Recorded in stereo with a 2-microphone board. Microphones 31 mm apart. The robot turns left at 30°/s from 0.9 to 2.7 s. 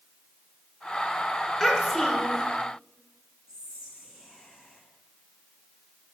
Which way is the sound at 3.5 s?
20° right (ahead or behind).